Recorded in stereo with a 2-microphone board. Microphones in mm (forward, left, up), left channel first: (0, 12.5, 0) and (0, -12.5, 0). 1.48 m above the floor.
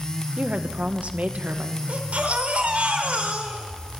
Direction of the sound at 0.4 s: 55° right (ahead or behind).